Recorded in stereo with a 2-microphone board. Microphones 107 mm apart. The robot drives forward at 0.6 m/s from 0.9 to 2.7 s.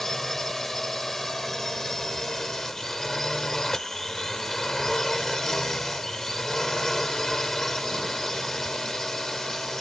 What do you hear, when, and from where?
0.0 s a drone: 5° left (ahead or behind)